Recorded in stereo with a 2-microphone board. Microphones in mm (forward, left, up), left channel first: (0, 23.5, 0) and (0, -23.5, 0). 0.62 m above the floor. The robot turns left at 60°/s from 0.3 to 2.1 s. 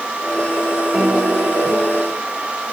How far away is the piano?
About 7 m.